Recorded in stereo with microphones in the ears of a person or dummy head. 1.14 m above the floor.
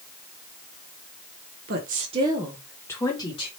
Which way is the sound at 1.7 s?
45° right (ahead or behind).